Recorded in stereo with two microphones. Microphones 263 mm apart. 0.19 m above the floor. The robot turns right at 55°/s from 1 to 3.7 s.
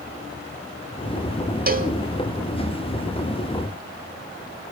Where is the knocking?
No knocking in this recording.